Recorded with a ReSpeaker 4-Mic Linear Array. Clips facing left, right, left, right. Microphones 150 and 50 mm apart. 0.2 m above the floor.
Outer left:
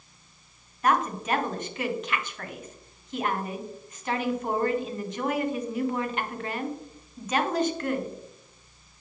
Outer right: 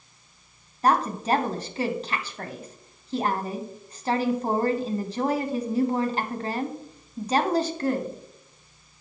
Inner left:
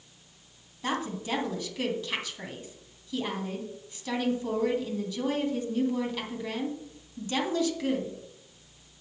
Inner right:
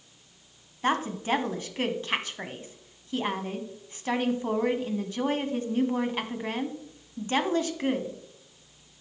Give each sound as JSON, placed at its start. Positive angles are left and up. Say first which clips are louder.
{"t": 0.8, "sound": "a woman speaking", "louder": "outer right 2 dB, inner right 5 dB", "side_deg": -35, "distance_m": 1.3}